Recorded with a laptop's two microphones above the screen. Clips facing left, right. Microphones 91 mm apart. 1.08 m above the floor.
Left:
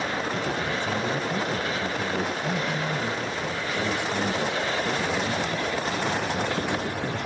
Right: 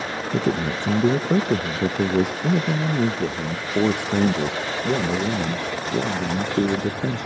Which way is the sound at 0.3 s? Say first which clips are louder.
Right 5 dB; 75° right (ahead or behind).